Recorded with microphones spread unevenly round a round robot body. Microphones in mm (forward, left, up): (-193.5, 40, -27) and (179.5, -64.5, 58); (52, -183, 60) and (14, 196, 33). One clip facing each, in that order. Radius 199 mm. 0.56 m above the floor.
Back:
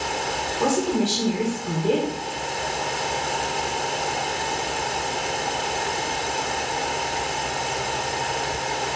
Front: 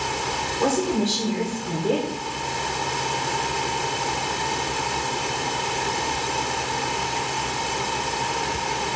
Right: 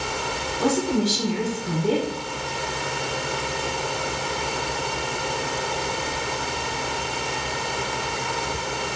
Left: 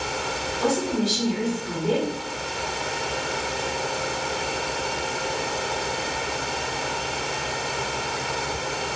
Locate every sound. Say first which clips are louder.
0.6 s a woman speaking: even, right 2 dB; 130° right, 1.8 m